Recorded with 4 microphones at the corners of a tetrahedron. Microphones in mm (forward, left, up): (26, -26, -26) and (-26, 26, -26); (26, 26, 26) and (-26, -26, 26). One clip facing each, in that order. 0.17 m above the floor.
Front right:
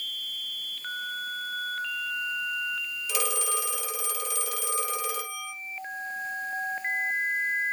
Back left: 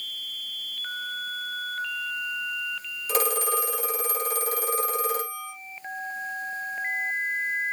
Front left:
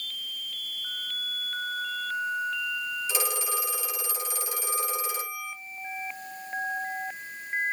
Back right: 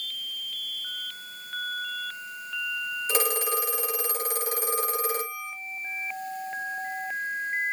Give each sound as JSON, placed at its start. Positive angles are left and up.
{"t": 3.1, "sound": "a phone ringing", "azimuth_deg": -175, "distance_m": 3.0}